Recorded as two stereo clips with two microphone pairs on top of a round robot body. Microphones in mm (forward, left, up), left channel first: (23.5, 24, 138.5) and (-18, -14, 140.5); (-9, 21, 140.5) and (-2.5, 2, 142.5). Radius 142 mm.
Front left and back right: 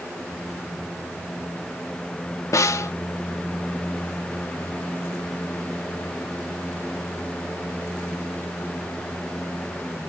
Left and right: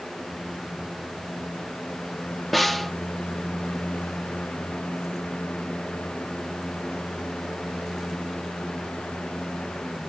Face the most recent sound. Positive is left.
turn(degrees=25)